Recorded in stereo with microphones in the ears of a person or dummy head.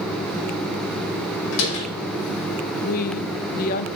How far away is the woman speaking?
About 0.6 m.